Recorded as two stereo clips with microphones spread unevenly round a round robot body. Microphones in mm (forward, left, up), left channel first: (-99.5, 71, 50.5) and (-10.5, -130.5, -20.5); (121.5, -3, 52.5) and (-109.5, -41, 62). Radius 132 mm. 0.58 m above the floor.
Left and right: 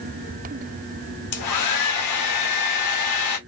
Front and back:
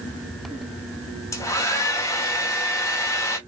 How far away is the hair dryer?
About 0.7 m.